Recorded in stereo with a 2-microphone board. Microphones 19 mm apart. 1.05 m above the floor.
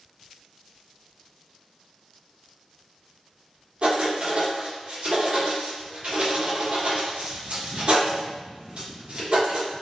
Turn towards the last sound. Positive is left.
turn(degrees=-65)  # may be behind; listen again after turning